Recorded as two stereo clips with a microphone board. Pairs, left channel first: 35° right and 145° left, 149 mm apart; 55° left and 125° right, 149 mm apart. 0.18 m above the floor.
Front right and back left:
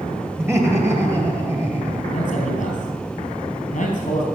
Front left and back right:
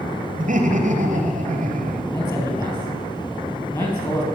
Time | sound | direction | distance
0.4 | laughter | 140° right | 2.5 m
2.1 | a man speaking | 5° right | 3.5 m